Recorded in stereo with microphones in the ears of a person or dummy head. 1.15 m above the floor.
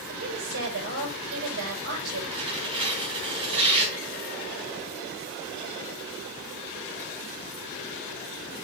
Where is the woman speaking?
70° right (ahead or behind), 5 m.